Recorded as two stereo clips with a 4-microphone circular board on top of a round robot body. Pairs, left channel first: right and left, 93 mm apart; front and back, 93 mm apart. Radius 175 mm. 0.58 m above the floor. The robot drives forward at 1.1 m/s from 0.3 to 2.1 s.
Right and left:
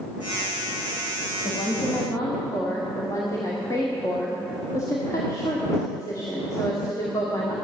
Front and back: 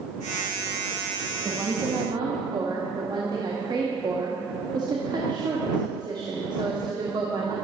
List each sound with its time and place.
1.4 s a woman speaking: 115° right, 1.1 m; by 7.5 s 145° right, 1.6 m